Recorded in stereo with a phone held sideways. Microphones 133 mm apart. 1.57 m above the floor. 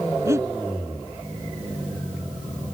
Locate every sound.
0.2 s breathing: 20° right (ahead or behind)